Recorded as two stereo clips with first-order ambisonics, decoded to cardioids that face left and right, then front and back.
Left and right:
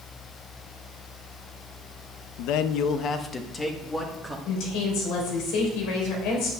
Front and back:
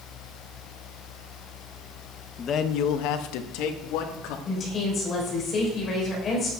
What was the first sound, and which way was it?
A man speaking, 65° left.